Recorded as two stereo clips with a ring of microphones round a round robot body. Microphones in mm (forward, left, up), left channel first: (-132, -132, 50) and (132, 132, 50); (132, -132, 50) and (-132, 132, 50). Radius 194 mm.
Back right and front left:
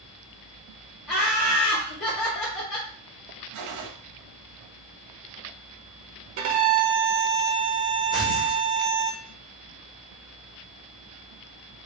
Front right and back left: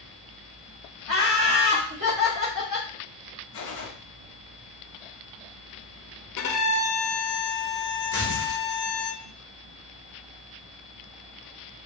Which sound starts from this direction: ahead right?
Tearing paper, at 8.1 s.